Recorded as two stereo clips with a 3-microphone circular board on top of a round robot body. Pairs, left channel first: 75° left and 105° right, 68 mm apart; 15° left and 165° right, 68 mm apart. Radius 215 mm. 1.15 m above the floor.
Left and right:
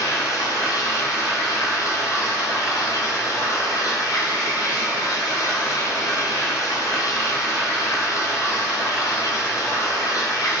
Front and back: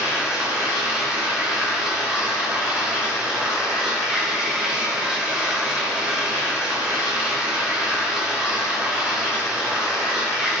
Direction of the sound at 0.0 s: 115° left.